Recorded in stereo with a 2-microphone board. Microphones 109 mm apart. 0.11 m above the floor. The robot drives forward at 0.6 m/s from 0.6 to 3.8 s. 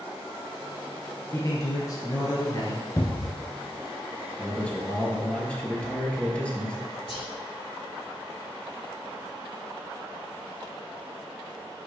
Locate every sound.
1.3 s a man speaking: 35° left (ahead or behind), 2.0 m; by 2.9 s 40° left (ahead or behind), 1.7 m
3.0 s a cupboard door: 35° left (ahead or behind), 0.8 m
4.4 s a man speaking: 10° left (ahead or behind), 2.5 m
7.1 s whispering: 60° left (ahead or behind), 3.5 m